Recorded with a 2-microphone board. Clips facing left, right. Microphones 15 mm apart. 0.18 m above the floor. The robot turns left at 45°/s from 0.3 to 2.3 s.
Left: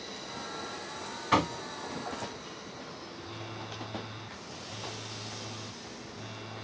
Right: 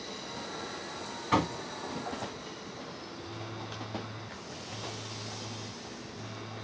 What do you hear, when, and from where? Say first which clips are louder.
1.3 s knocking: left 1 dB; 10° left (ahead or behind), 0.8 m; by 1.6 s 5° left (ahead or behind), 0.8 m
3.2 s a phone buzzing: even; 10° left (ahead or behind), 1.0 m